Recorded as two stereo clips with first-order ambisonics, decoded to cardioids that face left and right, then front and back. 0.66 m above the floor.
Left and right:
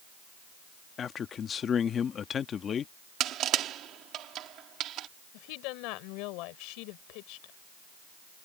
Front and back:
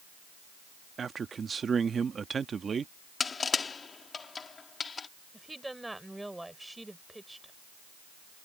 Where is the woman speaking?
95° left.